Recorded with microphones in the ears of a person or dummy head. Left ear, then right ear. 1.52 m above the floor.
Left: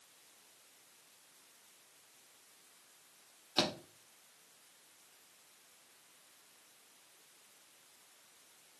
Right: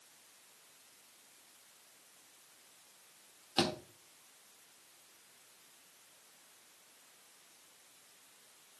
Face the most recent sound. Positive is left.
turn(degrees=5)  # may be behind; listen again after turning